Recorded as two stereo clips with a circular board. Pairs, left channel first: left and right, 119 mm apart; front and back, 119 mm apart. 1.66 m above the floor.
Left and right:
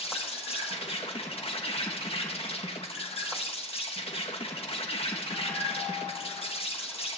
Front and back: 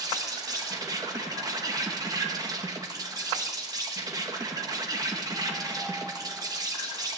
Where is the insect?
125° left, 1.7 m.